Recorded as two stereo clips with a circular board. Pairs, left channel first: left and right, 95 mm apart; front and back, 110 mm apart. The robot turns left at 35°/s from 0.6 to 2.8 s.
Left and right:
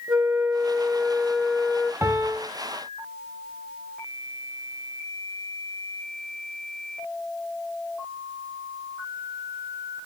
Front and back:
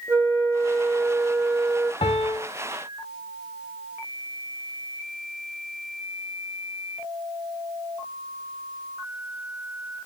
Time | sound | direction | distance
0.1 | a flute | 155° right | 0.5 m
2.0 | a piano | 30° right | 0.6 m